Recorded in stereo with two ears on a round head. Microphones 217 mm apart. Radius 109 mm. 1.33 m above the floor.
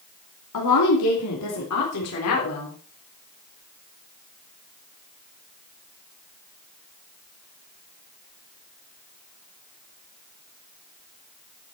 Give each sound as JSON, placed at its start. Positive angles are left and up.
{"t": 0.5, "sound": "a woman speaking", "side_deg": 90, "distance_m": 3.0}